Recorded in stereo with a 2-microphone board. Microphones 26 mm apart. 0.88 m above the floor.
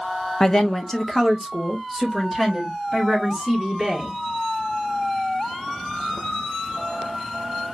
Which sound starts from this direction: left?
A woman speaking, at 0.4 s.